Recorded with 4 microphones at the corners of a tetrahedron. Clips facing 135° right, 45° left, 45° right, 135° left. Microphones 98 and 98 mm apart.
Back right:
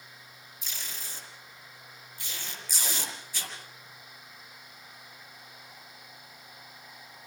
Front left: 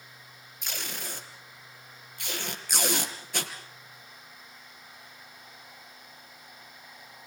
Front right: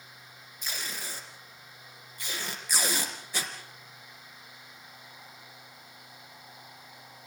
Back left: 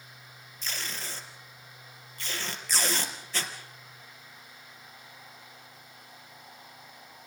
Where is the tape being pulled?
30° left, 4 m.